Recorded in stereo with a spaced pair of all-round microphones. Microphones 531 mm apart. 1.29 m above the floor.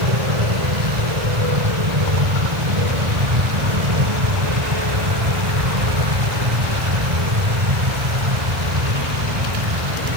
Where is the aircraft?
70° right (ahead or behind).